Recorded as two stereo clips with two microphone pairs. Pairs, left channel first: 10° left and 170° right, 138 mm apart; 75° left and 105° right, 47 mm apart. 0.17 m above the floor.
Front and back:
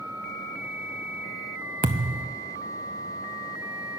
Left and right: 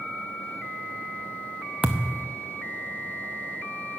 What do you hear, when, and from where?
1.8 s a thud: 170° right, 0.7 m